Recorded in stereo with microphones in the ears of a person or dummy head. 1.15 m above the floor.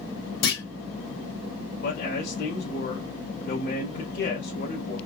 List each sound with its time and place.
0.4 s a clunk: 60° left (ahead or behind), 2.5 m
1.8 s a man speaking: 50° left (ahead or behind), 2.5 m